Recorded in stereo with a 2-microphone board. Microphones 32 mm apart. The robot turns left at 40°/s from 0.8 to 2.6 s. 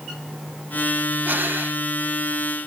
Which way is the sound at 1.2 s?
70° right (ahead or behind).